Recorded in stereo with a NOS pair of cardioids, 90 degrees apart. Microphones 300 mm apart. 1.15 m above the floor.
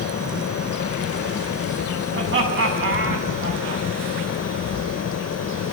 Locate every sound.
0.0 s a fan: 50° left, 0.9 m
2.1 s laughter: 45° right, 8 m